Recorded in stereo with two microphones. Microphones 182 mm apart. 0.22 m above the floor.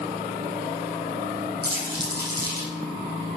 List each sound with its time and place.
1.6 s crumpling: 55° right (ahead or behind), 3.5 m